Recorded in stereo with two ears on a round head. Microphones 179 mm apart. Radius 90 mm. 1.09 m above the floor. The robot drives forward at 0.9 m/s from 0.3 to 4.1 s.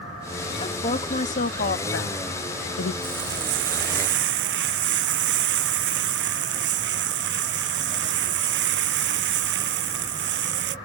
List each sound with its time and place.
0.6 s a woman speaking: 25° left (ahead or behind); by 2.9 s 80° left
3.0 s frying: 65° right (ahead or behind)